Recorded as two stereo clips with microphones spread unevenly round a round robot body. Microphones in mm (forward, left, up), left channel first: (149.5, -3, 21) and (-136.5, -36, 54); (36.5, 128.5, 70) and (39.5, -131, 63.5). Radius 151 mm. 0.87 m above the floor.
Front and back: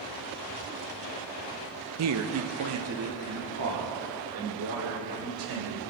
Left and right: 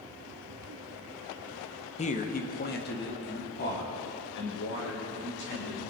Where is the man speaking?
155° left, 0.7 m; by 5.8 s 140° left, 4 m.